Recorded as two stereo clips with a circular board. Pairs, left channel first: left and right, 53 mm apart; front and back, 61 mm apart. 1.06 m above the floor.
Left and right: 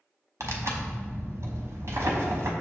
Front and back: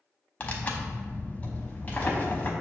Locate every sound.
0.4 s tearing paper: 65° right, 0.6 m